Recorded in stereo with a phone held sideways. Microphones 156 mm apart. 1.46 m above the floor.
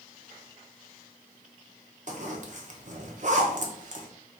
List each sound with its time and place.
2.1 s a zipper: 50° right (ahead or behind), 0.7 m